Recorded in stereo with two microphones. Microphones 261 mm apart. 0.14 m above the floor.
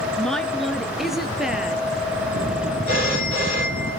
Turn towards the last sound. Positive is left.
turn(degrees=-40)  # may be behind; listen again after turning